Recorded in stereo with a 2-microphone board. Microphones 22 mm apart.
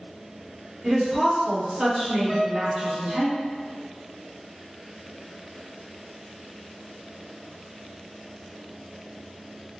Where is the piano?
15° right (ahead or behind), 1.4 m.